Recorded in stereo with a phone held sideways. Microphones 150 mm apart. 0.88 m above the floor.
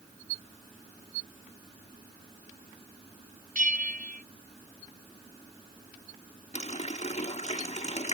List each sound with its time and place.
3.5 s a bell: 65° right (ahead or behind)
6.5 s a running tap: 50° left (ahead or behind)